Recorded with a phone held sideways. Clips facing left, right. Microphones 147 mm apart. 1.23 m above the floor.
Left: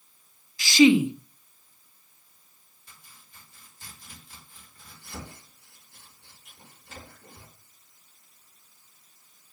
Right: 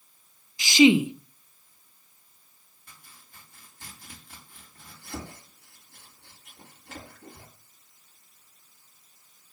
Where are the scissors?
No scissors in this recording.